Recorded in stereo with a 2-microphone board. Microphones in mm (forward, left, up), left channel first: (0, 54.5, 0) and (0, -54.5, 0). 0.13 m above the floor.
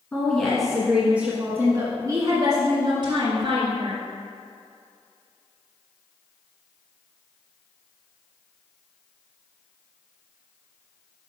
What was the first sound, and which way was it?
A woman speaking, 10° left (ahead or behind).